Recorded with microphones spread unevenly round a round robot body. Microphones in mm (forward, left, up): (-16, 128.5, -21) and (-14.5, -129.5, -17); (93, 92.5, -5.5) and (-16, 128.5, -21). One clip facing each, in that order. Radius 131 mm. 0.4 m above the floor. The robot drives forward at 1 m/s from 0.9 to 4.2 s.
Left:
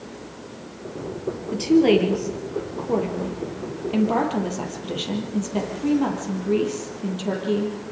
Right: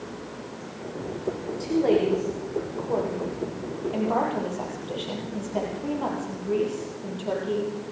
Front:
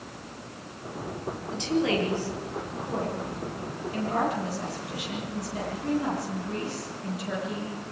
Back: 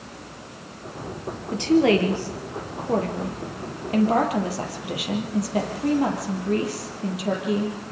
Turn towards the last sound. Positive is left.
turn(degrees=145)